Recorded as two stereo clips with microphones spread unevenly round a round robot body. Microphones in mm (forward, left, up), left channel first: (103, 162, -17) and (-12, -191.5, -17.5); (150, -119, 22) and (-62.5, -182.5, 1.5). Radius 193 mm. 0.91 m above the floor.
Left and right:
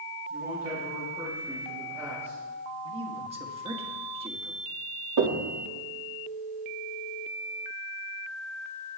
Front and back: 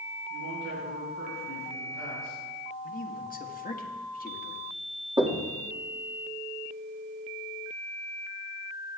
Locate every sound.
0.3 s a man speaking: 170° left, 3.5 m
2.8 s a man speaking: 35° right, 1.5 m
5.2 s knocking: 95° right, 1.8 m